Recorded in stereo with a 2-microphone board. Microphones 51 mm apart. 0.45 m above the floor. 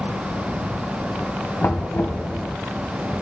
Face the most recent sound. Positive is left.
turn(degrees=60)  # may be behind; listen again after turning